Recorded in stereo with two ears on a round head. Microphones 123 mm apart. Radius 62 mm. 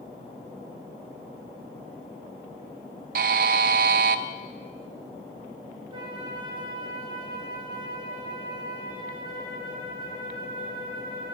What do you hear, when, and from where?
3.1 s a buzzer: 70° right (ahead or behind), 0.5 m
5.9 s a flute: 35° right (ahead or behind), 1.5 m